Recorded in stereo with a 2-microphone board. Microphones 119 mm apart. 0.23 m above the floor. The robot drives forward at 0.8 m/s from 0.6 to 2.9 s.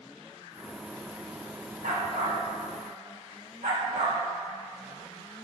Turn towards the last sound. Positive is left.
turn(degrees=-85)